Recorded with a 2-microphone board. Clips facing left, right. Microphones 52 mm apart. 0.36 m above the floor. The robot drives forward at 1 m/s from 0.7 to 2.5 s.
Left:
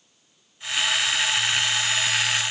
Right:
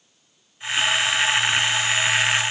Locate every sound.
Only background noise.